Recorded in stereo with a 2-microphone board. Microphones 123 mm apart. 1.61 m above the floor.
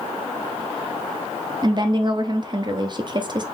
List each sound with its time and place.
1.6 s a woman speaking: 35° right (ahead or behind), 0.5 m